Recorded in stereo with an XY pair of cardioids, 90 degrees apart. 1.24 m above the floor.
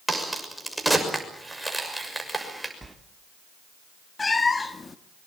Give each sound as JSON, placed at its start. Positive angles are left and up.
{"t": 0.1, "sound": "a crack", "azimuth_deg": -5, "distance_m": 6.5}
{"t": 2.8, "sound": "a sliding door", "azimuth_deg": -15, "distance_m": 2.5}
{"t": 4.2, "sound": "a cat meowing", "azimuth_deg": 30, "distance_m": 1.4}